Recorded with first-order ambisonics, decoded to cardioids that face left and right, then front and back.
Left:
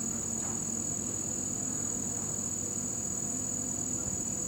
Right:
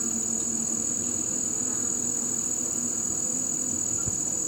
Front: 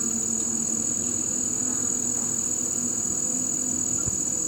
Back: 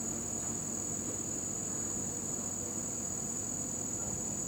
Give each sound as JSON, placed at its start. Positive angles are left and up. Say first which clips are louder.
{"t": 0.0, "sound": "an insect", "louder": "right 6 dB, front 11 dB", "azimuth_deg": -30, "distance_m": 0.8}